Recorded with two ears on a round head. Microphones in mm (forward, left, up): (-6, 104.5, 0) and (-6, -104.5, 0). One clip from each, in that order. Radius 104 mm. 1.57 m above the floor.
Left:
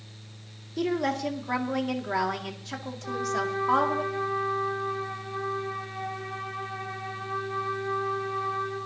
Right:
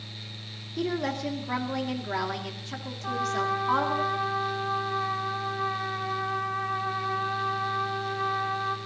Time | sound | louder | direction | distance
0.8 | a woman speaking | left 2 dB | 10° left (ahead or behind) | 2 m
3.0 | a trumpet | right 2 dB | 60° right (ahead or behind) | 5.5 m